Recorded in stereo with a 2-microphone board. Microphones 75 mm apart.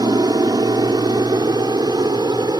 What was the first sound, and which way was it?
An aircraft, 70° right (ahead or behind).